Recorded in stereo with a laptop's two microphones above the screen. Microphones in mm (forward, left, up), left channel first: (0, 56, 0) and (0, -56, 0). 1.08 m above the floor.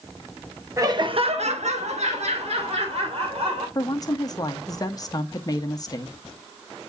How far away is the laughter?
About 1.2 m.